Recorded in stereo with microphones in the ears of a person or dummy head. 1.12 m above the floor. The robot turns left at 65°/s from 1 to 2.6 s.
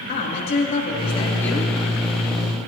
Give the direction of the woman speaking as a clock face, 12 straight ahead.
11 o'clock.